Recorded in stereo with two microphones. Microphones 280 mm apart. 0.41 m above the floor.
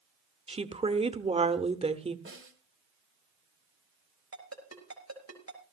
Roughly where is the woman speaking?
Right.